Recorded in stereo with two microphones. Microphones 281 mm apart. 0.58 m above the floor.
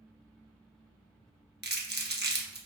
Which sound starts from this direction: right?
Crumpling, at 1.6 s.